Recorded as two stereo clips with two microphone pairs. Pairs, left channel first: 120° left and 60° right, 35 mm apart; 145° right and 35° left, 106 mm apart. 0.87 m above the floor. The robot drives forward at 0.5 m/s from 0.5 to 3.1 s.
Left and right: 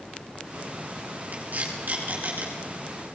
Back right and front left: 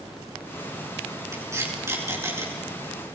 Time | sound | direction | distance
1.3 | tape being pulled | 25° right | 9 m